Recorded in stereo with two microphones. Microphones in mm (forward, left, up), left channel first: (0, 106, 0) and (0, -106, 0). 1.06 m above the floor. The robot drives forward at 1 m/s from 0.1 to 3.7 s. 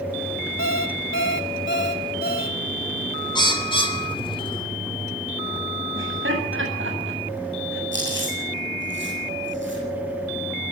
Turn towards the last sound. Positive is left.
turn(degrees=-65)  # may be behind; listen again after turning